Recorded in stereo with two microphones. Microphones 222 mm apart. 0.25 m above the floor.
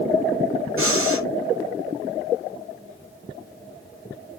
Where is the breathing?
70° right (ahead or behind), 3 m.